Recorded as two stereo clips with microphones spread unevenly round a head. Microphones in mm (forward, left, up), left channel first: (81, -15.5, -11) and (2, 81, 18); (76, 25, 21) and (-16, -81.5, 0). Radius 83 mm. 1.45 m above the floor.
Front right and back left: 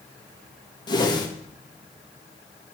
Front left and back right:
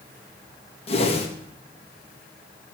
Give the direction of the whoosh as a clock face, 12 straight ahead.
12 o'clock.